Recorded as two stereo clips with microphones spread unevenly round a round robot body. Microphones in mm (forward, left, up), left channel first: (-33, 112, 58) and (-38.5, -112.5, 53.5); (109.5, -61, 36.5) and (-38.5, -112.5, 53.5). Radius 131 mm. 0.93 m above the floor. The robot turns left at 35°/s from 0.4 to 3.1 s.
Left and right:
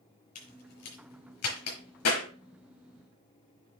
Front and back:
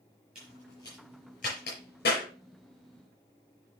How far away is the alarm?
No alarm in this recording.